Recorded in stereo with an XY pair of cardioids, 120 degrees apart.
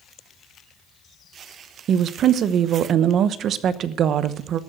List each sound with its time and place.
1.9 s a woman speaking: 55° right, 0.9 m